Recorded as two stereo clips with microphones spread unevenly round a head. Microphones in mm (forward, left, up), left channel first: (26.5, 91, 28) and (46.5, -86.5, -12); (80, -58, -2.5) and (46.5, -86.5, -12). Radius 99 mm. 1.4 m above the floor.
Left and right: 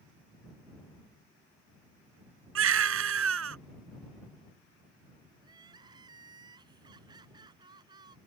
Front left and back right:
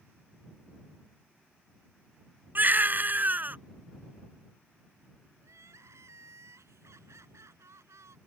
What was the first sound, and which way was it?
A baby crying, 95° right.